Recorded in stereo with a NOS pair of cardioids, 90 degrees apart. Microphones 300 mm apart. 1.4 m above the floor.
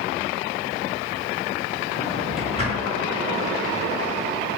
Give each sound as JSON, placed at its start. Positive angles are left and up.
{"t": 1.9, "sound": "a drawer", "azimuth_deg": 20, "distance_m": 1.5}